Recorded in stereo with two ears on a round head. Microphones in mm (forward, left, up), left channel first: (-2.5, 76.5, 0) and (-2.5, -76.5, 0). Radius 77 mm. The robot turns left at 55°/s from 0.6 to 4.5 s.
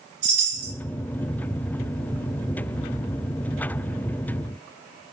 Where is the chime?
75° right (ahead or behind), 2.0 m; by 0.7 s 85° right, 2.0 m.